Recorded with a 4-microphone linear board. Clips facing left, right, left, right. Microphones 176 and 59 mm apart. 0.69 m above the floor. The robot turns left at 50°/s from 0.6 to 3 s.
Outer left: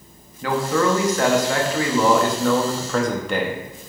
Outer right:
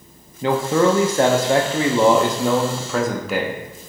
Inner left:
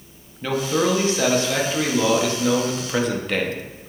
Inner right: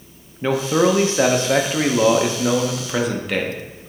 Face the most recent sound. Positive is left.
turn(degrees=-175)